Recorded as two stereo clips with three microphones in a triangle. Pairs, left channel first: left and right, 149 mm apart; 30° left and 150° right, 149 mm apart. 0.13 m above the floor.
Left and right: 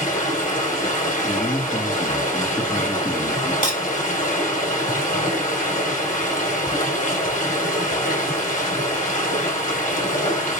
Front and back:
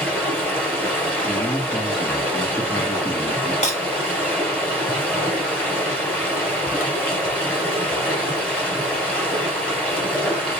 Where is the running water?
110° left, 2.0 m.